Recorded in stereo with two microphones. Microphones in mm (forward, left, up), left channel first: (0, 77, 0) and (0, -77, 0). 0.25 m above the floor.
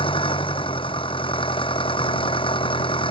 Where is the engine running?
35° left (ahead or behind).